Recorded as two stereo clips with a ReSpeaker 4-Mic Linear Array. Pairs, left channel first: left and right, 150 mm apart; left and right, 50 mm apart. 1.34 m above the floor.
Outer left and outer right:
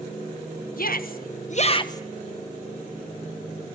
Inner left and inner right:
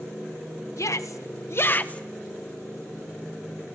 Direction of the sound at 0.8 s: 75° left (ahead or behind).